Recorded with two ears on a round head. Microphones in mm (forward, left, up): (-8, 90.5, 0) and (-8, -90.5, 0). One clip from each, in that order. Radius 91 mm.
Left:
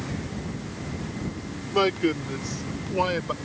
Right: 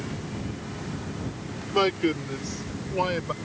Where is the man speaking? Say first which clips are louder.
Left 1 dB; 10° right (ahead or behind); by 3.3 s 5° left (ahead or behind).